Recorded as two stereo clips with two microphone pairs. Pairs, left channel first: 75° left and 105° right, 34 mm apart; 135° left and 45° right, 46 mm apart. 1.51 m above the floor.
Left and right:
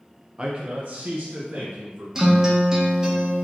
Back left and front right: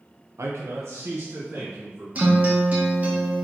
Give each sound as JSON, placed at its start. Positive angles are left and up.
{"t": 0.4, "sound": "a man speaking", "azimuth_deg": -35, "distance_m": 0.6}
{"t": 2.1, "sound": "a guitar", "azimuth_deg": -50, "distance_m": 1.1}